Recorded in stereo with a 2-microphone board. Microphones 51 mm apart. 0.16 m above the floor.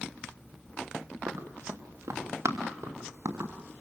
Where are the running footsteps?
90° right, 3.5 m; by 3.5 s 65° right (ahead or behind), 5 m.